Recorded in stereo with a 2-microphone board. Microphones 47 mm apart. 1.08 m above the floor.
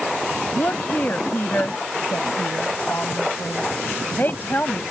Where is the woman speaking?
35° left (ahead or behind).